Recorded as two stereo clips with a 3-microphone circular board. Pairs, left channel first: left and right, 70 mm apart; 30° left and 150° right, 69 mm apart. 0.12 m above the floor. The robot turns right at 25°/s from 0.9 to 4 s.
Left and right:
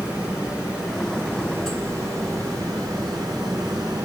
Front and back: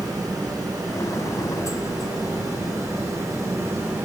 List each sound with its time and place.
0.0 s running water: 165° right, 5.5 m; by 4.0 s 90° right, 5.5 m